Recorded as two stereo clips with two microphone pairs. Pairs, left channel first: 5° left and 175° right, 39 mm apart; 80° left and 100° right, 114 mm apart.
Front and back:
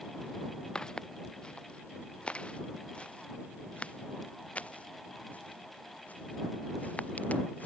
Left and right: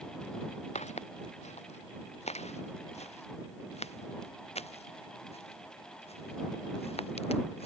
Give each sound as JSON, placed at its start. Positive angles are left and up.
{"t": 0.8, "sound": "footsteps", "azimuth_deg": 75}